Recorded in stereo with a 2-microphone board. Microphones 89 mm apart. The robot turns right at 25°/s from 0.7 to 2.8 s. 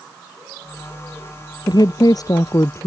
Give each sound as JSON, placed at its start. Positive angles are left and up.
{"t": 1.7, "sound": "a woman speaking", "side_deg": 55}